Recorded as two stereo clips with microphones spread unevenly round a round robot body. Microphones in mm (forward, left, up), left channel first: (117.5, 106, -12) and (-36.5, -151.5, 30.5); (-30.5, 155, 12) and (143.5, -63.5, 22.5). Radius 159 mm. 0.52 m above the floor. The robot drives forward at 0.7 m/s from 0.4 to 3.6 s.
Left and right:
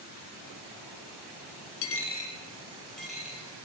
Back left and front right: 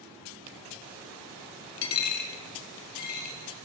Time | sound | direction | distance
1.8 | a dropped coin | 95° left | 0.6 m